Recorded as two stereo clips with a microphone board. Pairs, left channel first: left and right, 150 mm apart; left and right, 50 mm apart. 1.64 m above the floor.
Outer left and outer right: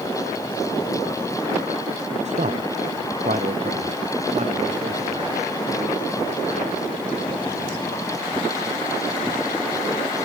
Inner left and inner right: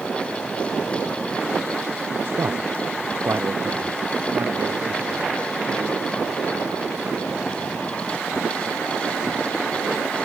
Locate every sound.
2.2 s a man speaking: 45° right (ahead or behind), 0.8 m; by 5.4 s 50° right (ahead or behind), 3 m